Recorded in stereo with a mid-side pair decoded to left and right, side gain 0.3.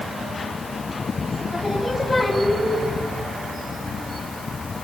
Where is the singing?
35° left, 3 m.